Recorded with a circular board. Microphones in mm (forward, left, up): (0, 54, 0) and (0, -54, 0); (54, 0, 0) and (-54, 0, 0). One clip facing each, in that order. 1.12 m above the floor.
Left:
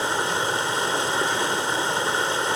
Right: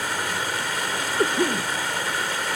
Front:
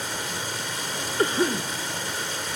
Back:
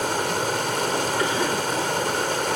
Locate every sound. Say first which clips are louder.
0.0 s running water: left 3 dB, back 9 dB; 155° left, 2.0 m
1.2 s a cough: right 2 dB, even; 55° right, 1.1 m